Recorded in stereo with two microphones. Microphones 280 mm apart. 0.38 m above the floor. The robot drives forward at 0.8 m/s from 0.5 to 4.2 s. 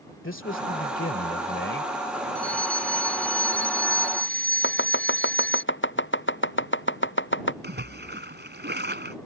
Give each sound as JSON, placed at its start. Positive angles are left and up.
{"t": 0.2, "sound": "a man speaking", "side_deg": 45}
{"t": 2.4, "sound": "a fire alarm", "side_deg": 5}
{"t": 4.6, "sound": "chopping", "side_deg": 40}
{"t": 7.6, "sound": "a splash", "side_deg": -35}